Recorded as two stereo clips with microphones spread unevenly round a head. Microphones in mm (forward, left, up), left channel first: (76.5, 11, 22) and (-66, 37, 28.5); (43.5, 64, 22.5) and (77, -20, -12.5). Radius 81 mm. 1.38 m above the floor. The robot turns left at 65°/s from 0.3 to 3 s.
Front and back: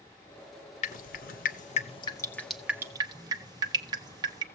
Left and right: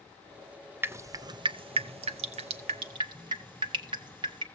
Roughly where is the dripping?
Ahead.